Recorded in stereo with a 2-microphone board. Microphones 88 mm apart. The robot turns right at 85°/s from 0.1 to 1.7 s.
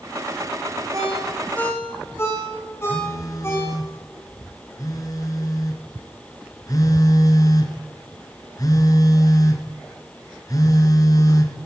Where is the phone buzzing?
40° left (ahead or behind), 2.5 m.